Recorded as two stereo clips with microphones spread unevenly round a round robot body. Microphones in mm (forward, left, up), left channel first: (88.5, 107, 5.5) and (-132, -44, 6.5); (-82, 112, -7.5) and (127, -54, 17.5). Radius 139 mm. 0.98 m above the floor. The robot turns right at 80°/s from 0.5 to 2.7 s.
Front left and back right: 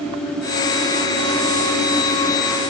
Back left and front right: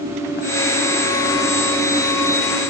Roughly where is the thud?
No thud in this recording.